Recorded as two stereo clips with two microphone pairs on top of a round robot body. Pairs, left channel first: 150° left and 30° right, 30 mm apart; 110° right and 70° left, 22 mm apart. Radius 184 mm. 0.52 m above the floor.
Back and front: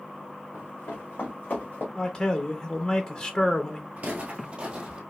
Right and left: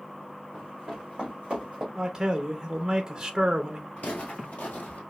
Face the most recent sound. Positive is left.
turn(degrees=-90)